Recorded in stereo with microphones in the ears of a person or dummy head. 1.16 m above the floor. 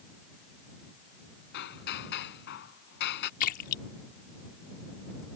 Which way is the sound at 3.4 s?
50° left (ahead or behind).